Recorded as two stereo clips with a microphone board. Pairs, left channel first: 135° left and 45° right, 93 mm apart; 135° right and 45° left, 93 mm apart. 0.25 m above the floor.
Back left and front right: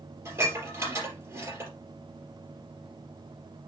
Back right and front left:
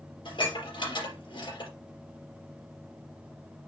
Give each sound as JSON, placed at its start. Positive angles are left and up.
{"t": 0.2, "sound": "dishes clattering", "azimuth_deg": -105, "distance_m": 3.5}